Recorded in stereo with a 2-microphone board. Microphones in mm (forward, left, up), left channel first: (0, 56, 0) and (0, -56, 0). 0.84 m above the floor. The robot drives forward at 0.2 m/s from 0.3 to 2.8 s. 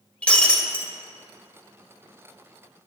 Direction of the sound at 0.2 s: 10° left (ahead or behind).